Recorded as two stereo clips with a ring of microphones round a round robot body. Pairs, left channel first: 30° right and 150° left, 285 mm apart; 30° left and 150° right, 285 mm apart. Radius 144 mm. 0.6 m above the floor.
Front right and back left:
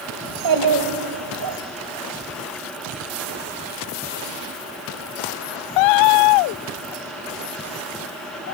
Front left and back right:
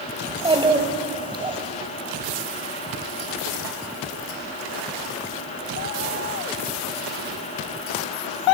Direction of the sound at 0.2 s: 135° left.